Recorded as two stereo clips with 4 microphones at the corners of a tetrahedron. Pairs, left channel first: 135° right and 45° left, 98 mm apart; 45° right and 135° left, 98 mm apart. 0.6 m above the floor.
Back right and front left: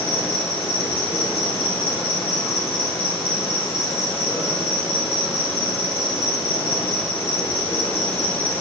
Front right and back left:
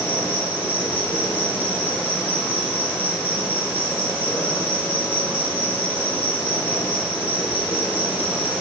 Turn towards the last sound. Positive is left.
turn(degrees=-115)